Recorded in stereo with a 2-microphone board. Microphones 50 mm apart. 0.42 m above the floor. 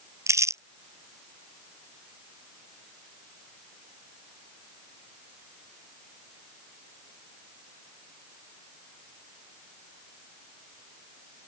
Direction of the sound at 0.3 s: 80° right.